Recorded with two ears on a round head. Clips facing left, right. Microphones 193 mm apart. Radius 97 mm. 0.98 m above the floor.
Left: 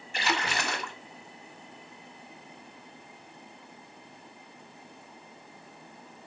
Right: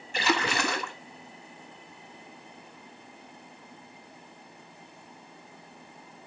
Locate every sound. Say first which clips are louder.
0.1 s a splash: right 4 dB; 70° right (ahead or behind), 1.6 m